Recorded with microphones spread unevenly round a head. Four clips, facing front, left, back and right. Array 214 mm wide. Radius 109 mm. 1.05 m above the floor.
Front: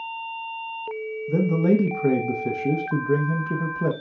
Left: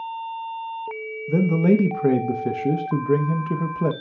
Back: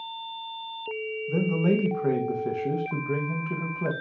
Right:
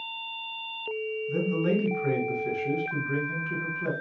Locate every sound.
1.3 s a man speaking: 55° left, 0.8 m